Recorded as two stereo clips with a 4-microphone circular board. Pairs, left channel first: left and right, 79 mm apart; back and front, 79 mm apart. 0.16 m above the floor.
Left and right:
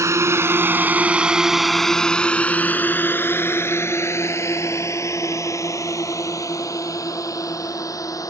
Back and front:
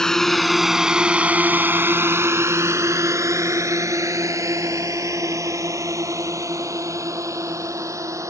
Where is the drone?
100° right; by 8.3 s 50° left.